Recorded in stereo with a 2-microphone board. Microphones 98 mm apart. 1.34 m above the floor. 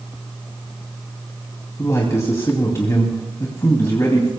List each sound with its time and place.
1.8 s a man speaking: 35° left (ahead or behind), 2.5 m